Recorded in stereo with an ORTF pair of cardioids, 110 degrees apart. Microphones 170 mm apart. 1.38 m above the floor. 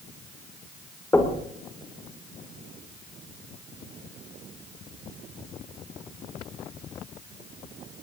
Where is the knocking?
15° left, 3 m.